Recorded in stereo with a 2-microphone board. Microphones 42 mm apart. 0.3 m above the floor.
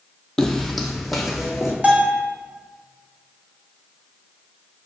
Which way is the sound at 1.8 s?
35° right (ahead or behind).